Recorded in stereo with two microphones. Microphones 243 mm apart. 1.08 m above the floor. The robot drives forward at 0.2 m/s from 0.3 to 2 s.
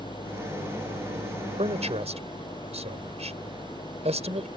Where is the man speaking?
30° right (ahead or behind).